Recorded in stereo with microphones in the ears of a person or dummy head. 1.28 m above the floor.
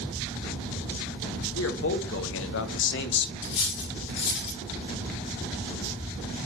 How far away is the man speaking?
About 1.8 m.